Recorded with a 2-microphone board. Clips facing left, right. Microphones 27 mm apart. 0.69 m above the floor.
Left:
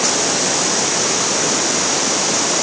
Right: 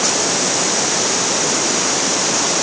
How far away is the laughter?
No laughter in this recording.